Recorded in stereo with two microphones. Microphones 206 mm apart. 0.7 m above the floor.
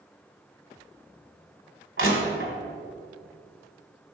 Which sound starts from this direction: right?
Crushing, at 2.0 s.